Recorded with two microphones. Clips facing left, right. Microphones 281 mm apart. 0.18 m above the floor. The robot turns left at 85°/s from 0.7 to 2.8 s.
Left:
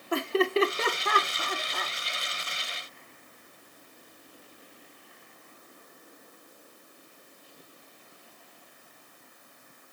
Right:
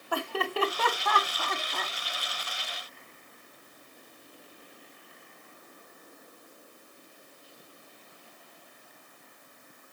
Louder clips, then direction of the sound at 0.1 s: Left 7 dB; 20° left (ahead or behind).